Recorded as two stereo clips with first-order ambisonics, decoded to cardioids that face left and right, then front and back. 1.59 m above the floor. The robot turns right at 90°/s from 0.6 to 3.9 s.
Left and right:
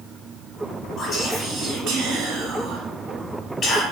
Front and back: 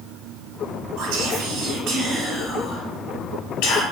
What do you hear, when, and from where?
1.0 s whispering: 150° left, 0.9 m; by 3.8 s 45° left, 0.9 m